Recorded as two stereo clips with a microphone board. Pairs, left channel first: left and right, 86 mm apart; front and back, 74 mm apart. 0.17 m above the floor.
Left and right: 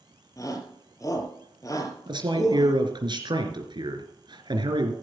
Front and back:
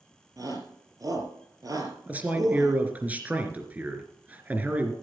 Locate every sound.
0.4 s a shout: 140° left, 4.5 m
2.1 s a man speaking: 110° right, 3 m